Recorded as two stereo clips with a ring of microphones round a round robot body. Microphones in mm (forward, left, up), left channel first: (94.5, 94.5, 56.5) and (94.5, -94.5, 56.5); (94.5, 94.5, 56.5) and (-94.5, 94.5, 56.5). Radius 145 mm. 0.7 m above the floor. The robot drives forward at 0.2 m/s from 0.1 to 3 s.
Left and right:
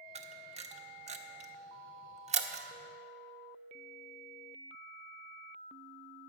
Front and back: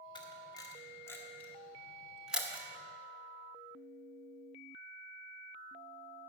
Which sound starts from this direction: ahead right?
A camera shutter, at 0.1 s.